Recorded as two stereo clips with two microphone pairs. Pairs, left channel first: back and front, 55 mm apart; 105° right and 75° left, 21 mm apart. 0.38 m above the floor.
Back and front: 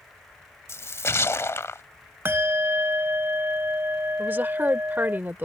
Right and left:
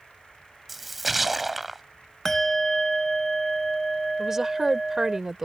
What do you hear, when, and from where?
0.7 s a splash: 155° left
2.2 s a bell: 35° right
4.2 s a woman speaking: 10° left